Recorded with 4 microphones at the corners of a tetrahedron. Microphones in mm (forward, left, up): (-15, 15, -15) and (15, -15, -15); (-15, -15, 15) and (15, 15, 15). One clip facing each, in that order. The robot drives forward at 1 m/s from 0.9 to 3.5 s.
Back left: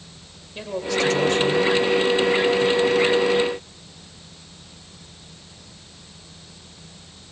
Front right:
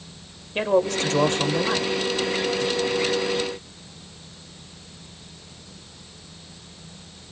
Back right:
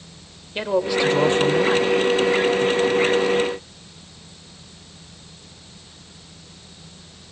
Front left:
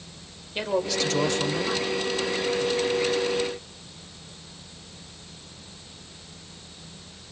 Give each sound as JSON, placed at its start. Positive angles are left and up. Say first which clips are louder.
{"t": 0.6, "sound": "a man speaking", "louder": "front right 4 dB, back right 5 dB", "azimuth_deg": -65, "distance_m": 2.5}